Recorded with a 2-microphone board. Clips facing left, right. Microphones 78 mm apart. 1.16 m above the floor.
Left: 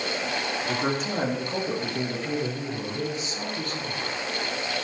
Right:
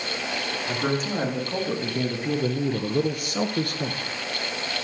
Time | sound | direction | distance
0.7 | a man speaking | 5° left (ahead or behind) | 3 m